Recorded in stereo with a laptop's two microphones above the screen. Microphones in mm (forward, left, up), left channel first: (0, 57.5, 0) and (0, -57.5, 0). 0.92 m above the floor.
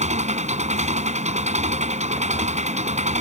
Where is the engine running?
80° right.